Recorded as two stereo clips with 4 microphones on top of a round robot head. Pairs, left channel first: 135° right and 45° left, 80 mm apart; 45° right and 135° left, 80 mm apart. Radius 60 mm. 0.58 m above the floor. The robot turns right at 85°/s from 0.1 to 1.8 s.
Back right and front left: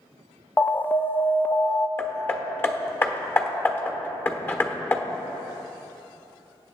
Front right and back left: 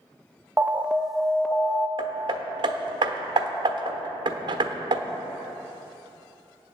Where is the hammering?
160° left, 1.1 m.